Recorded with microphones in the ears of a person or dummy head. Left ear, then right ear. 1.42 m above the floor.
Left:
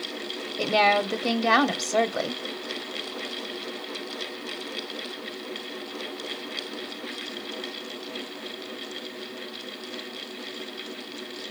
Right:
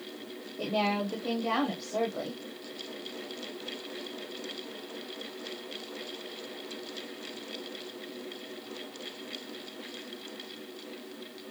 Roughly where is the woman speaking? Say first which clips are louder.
Left 9 dB; left.